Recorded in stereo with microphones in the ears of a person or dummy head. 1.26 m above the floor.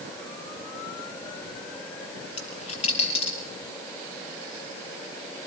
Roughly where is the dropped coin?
Left.